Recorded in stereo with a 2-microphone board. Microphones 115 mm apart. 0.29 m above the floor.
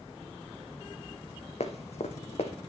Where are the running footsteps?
70° left (ahead or behind), 1.0 m.